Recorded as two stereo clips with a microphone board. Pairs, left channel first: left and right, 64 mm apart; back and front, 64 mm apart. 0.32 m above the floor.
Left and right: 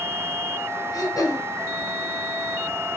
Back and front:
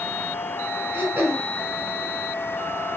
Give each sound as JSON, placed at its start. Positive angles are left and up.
{"t": 0.9, "sound": "throat clearing", "azimuth_deg": 55, "distance_m": 1.6}